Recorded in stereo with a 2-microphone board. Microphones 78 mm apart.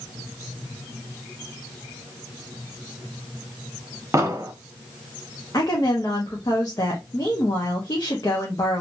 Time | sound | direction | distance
4.1 | an explosion | 40° right (ahead or behind) | 0.8 m
5.5 | a woman speaking | 50° left (ahead or behind) | 1.0 m